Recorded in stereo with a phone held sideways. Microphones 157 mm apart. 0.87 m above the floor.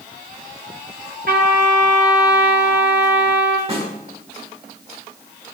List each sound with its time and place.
1.3 s a trumpet: 70° right (ahead or behind), 3.5 m
3.7 s a snare drum: 35° right (ahead or behind), 5 m